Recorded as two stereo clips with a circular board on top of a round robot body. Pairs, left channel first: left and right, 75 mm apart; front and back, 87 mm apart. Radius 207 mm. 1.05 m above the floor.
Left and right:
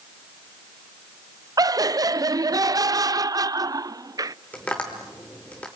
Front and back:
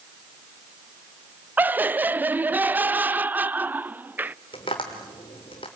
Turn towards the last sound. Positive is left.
turn(degrees=20)